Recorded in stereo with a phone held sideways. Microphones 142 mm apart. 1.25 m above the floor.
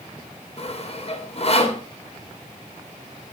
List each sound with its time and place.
0.6 s sawing: 45° left (ahead or behind), 2.5 m